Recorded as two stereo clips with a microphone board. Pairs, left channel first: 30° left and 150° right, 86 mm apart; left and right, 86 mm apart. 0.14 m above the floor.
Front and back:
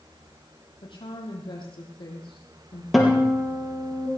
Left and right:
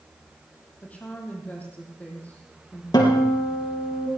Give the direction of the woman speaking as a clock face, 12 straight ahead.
11 o'clock.